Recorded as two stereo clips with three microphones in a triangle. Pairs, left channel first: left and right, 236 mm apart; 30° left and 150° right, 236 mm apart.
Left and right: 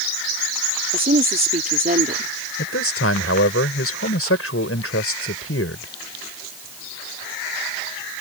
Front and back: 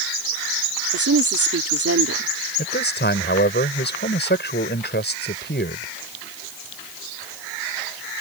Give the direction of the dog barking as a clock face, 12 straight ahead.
I don't hear a dog barking.